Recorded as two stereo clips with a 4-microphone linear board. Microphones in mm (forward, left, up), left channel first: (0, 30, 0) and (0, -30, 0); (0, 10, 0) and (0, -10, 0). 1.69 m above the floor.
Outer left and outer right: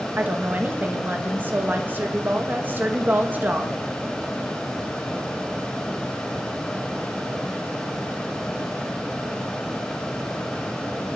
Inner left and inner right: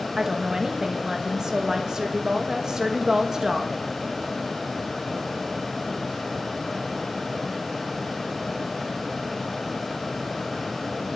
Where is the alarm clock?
I don't hear an alarm clock.